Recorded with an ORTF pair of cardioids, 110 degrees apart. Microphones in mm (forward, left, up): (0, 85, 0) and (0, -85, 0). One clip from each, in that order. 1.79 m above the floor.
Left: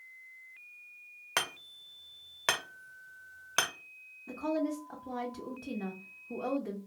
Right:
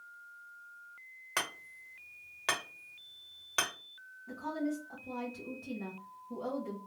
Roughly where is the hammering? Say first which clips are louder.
Left 3 dB; ahead left.